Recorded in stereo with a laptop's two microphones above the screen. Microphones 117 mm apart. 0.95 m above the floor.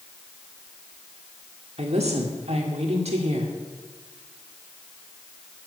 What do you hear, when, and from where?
1.8 s a woman speaking: 65° right (ahead or behind), 1.9 m